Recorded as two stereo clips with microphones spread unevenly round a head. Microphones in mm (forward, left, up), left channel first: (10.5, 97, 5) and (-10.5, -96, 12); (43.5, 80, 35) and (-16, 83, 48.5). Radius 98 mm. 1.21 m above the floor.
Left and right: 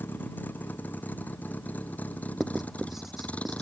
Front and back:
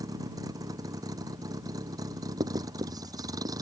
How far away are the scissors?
I don't hear scissors.